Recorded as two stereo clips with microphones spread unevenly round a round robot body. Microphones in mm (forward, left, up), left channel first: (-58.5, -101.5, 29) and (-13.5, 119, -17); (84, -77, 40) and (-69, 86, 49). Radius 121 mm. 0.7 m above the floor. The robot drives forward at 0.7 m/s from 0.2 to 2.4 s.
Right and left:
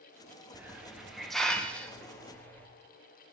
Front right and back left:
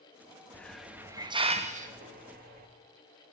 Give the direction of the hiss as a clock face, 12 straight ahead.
11 o'clock.